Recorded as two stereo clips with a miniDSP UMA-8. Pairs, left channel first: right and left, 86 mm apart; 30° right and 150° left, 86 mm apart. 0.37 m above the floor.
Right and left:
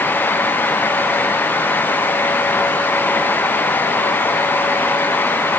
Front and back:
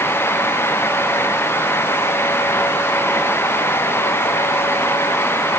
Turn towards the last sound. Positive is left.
No sound to turn to.